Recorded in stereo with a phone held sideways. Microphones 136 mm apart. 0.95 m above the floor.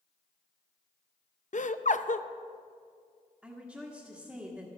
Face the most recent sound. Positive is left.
turn(degrees=-5)  # may be behind; listen again after turning